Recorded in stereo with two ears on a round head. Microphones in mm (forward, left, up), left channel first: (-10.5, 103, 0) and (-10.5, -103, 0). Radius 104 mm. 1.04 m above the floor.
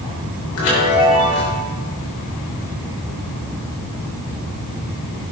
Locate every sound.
0.6 s a chime: 65° left (ahead or behind), 6 m